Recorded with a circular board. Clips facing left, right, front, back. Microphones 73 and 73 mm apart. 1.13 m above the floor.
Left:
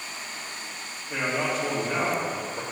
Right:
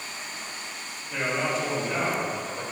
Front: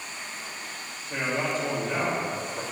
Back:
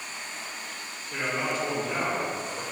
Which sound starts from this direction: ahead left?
A man speaking, at 1.1 s.